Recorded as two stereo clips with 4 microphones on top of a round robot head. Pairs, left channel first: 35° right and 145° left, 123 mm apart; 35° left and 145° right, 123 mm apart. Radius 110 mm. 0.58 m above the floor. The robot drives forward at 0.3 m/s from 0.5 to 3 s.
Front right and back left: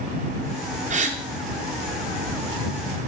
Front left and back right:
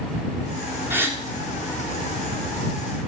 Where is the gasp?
140° left, 1.7 m; by 1.2 s 145° left, 1.7 m.